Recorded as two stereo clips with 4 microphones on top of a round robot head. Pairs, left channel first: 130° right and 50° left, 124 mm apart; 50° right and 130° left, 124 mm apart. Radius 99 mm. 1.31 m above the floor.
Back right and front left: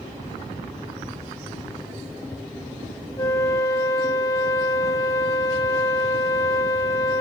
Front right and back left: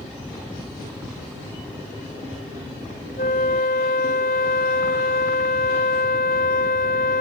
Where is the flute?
65° right, 1.5 m.